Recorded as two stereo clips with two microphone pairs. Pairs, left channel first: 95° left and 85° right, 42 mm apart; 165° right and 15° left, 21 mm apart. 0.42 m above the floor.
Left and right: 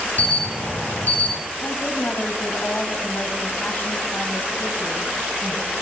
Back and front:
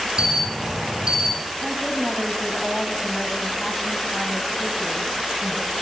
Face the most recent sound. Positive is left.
turn(degrees=120)